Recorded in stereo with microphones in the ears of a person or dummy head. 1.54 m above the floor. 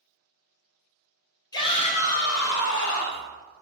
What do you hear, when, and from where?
1.5 s a shout: 25° left (ahead or behind), 1.3 m; by 3.3 s 80° left, 1.6 m